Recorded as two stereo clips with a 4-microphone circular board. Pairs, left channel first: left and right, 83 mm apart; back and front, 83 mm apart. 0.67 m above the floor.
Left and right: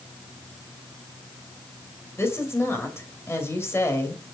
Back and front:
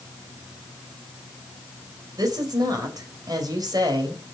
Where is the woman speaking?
30° left, 3 m.